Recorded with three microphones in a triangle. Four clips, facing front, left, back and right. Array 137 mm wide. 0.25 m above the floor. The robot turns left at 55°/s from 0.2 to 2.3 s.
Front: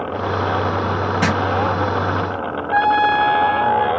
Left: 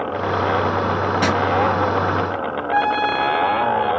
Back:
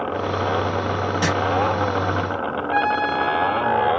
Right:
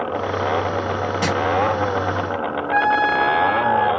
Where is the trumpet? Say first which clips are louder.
Right 1 dB, front 6 dB; 10° right, 0.7 m.